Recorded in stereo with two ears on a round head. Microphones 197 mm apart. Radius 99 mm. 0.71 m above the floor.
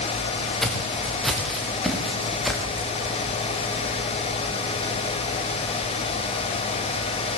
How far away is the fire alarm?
I don't hear a fire alarm.